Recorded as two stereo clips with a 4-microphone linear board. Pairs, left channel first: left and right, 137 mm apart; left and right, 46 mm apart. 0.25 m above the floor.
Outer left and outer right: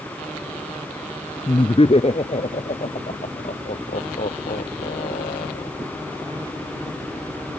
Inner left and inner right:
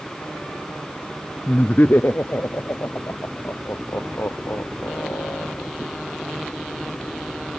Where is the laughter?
40° left (ahead or behind); by 5.7 s 80° left.